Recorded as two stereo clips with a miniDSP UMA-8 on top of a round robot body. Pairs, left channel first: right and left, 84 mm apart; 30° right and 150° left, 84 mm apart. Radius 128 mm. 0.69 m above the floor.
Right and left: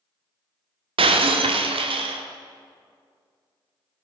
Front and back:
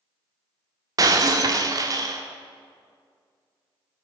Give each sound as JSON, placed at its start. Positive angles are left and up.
{"t": 1.0, "sound": "breaking glass", "azimuth_deg": 100, "distance_m": 0.8}